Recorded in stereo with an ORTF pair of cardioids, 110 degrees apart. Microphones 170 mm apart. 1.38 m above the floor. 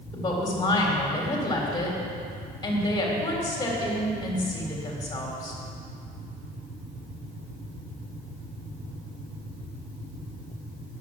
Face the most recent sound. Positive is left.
turn(degrees=25)